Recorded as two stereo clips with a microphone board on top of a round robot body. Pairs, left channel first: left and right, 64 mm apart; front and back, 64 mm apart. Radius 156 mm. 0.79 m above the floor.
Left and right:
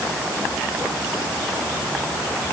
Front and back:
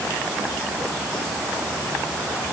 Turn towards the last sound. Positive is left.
No sound to turn to.